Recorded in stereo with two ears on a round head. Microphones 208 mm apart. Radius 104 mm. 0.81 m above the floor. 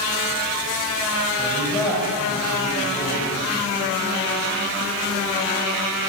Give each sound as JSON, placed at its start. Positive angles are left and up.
{"t": 1.4, "sound": "a man speaking", "side_deg": 10, "distance_m": 4.5}